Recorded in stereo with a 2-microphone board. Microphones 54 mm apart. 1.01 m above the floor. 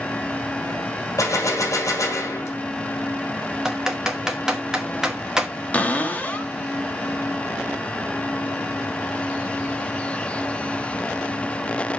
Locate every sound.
1.2 s a gunshot: 75° left (ahead or behind), 2 m
3.6 s typing on a keyboard: 10° right (ahead or behind), 1.0 m
5.7 s a cupboard door: 25° left (ahead or behind), 1.0 m